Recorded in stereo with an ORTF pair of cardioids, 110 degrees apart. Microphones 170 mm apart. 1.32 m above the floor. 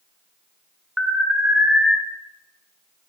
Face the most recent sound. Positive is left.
turn(degrees=-10)